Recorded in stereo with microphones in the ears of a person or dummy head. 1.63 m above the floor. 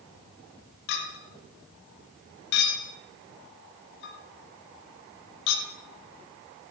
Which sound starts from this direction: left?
A clink, at 0.9 s.